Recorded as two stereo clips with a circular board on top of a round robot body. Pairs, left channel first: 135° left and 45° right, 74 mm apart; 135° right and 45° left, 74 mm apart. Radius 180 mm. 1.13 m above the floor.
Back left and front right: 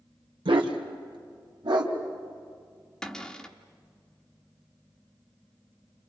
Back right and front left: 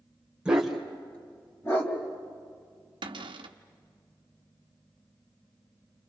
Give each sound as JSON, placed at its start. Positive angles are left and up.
{"t": 0.5, "sound": "a dog barking", "azimuth_deg": -35, "distance_m": 1.9}
{"t": 3.0, "sound": "a cupboard door", "azimuth_deg": 55, "distance_m": 1.1}